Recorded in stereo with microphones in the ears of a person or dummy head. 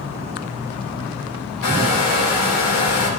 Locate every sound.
1.6 s a hair dryer: 70° left (ahead or behind), 4 m